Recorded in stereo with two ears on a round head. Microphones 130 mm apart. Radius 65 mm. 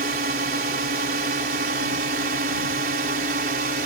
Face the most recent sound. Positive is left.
turn(degrees=-65)  # may be behind; listen again after turning